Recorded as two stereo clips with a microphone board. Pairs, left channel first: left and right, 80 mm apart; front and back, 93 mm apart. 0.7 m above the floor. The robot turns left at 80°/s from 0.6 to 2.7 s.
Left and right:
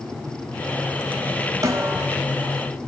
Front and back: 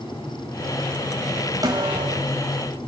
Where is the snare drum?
135° right, 4 m; by 2.2 s straight behind, 4 m.